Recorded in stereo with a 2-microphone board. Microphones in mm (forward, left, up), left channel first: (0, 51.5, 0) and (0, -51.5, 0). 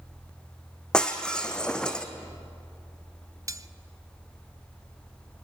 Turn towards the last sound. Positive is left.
turn(degrees=-30)  # may be behind; listen again after turning